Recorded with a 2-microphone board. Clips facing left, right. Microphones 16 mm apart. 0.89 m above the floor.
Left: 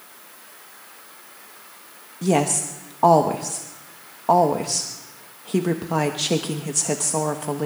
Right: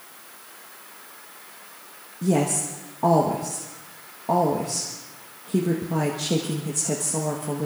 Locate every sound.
2.2 s a woman speaking: 55° left (ahead or behind), 1.0 m